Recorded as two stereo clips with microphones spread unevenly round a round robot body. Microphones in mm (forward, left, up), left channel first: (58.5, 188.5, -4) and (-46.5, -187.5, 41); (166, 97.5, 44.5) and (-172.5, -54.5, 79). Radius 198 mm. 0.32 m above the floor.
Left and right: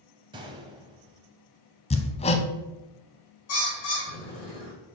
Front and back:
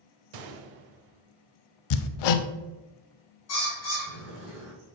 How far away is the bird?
About 3 m.